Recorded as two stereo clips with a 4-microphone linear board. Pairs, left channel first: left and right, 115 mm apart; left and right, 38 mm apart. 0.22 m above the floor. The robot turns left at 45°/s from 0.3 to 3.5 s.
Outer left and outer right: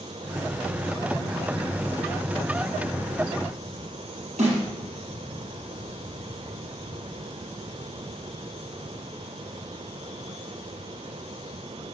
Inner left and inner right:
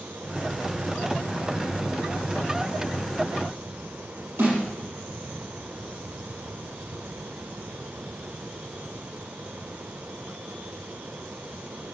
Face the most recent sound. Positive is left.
turn(degrees=-75)  # may be behind; listen again after turning